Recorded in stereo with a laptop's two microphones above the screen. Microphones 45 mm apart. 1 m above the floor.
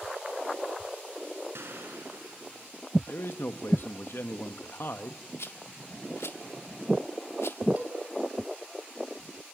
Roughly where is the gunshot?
Right.